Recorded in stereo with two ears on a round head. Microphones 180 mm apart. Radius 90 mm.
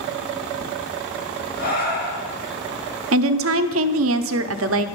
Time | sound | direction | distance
1.6 | breathing | 50° left (ahead or behind) | 1.5 m
3.1 | a woman speaking | 75° right (ahead or behind) | 0.5 m